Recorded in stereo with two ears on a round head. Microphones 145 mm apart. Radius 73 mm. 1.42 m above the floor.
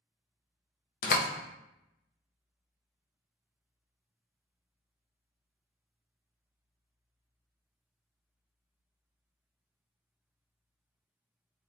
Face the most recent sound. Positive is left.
turn(degrees=55)  # may be behind; listen again after turning